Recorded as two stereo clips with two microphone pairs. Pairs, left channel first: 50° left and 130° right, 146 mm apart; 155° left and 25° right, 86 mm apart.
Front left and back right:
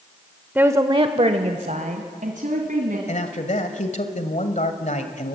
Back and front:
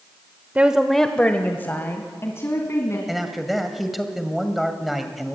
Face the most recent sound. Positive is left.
turn(degrees=60)